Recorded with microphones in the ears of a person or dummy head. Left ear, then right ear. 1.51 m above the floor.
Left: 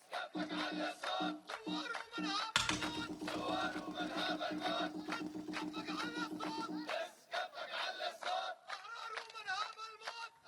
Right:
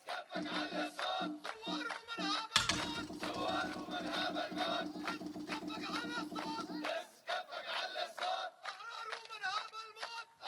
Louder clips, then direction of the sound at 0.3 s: Right 2 dB; 20° left (ahead or behind).